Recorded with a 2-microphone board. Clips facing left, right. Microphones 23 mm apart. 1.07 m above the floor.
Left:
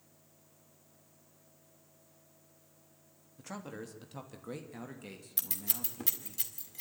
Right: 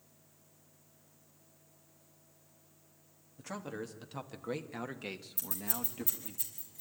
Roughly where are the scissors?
Left.